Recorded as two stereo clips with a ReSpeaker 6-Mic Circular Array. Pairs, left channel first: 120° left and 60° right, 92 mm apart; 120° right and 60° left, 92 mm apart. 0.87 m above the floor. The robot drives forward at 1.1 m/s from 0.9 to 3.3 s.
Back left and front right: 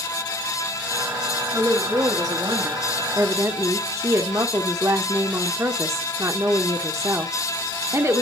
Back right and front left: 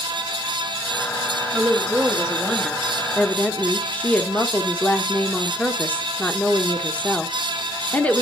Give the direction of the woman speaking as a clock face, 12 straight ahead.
12 o'clock.